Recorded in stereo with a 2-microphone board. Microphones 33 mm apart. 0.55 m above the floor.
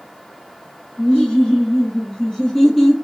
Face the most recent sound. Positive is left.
turn(degrees=5)  # may be behind; listen again after turning